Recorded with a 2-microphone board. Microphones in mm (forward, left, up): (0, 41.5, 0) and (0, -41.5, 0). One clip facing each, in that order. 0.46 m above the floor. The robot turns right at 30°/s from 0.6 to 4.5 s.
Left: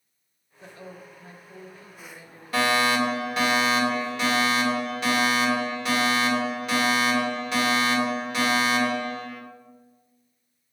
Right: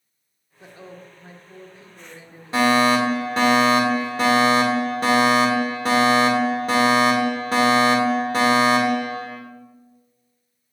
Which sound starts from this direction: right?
A woman speaking, at 0.6 s.